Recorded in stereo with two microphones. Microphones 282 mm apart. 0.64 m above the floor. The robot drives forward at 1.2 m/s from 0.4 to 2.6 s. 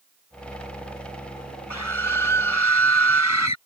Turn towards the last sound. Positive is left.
turn(degrees=80)